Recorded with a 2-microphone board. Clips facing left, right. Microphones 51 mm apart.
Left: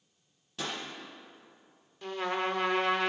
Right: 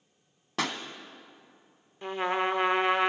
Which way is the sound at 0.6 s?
85° right.